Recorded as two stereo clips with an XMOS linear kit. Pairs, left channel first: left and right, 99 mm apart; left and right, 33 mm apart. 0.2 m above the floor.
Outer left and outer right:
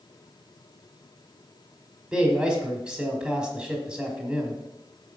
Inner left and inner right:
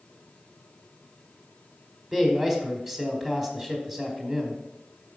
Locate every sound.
2.1 s a man speaking: 10° right (ahead or behind), 1.3 m